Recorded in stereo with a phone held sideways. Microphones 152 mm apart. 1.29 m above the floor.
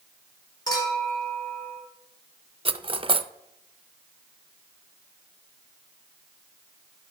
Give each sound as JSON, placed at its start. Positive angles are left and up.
{"t": 0.7, "sound": "a clink", "side_deg": 25, "distance_m": 3.5}
{"t": 2.6, "sound": "cutlery clinking", "side_deg": -35, "distance_m": 0.5}